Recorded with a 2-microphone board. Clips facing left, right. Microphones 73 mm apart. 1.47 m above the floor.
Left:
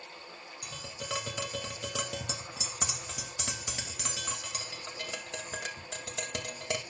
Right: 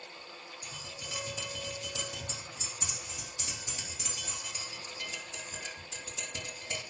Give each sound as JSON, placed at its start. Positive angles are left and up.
{"t": 0.6, "sound": "tapping", "side_deg": 90, "distance_m": 2.0}